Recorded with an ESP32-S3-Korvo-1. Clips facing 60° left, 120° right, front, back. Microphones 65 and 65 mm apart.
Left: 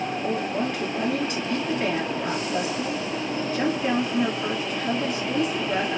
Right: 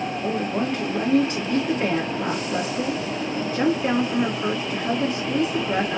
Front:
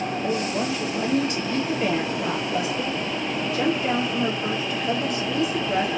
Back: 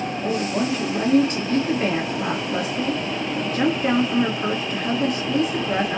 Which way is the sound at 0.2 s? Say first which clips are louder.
Right 2 dB, back 3 dB; 160° right.